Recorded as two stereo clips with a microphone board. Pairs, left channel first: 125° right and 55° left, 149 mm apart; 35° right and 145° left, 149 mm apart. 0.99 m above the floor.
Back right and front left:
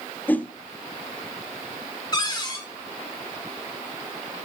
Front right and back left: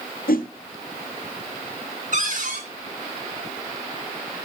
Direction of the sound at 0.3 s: 45° right.